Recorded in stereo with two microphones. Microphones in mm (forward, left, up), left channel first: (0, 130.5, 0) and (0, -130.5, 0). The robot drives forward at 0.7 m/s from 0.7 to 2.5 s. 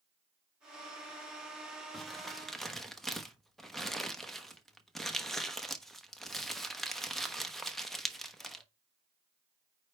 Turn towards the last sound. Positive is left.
turn(degrees=0)  # may be behind; listen again after turning